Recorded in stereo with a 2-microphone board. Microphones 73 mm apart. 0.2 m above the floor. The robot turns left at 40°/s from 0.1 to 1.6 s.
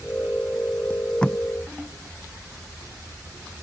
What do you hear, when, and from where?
0.9 s tape being pulled: 25° left (ahead or behind); by 1.4 s 5° left (ahead or behind)